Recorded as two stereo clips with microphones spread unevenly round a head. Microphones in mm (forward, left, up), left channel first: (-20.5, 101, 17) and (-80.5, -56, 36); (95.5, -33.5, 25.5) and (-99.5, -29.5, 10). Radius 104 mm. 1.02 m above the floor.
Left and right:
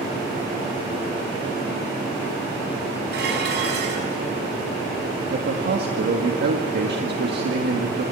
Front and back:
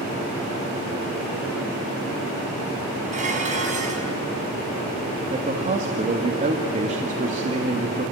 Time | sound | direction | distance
3.1 | dishes clattering | 125° right | 5 m
5.3 | a man speaking | 130° right | 1.9 m